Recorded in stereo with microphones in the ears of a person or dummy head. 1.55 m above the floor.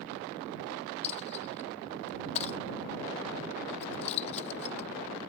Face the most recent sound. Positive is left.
turn(degrees=40)  # may be behind; listen again after turning